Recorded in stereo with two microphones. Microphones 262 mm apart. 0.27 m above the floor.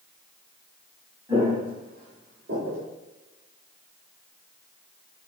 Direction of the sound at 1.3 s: 10° right (ahead or behind).